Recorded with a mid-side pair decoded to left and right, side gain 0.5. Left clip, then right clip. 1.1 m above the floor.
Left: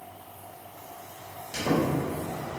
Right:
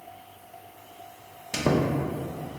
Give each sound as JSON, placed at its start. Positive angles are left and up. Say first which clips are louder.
{"t": 1.5, "sound": "a squeak", "louder": "right 2 dB", "azimuth_deg": -60, "distance_m": 0.6}